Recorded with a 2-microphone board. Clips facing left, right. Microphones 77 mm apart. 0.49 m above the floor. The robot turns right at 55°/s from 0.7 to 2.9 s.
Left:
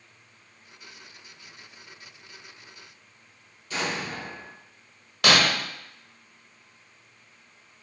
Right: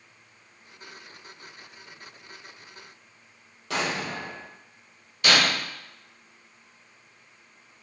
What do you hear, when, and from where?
3.7 s an explosion: 70° right (ahead or behind), 0.7 m
5.2 s breaking glass: 75° left (ahead or behind), 0.9 m